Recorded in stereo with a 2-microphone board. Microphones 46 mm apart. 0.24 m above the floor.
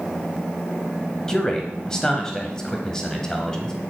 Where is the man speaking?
15° left (ahead or behind), 0.9 m.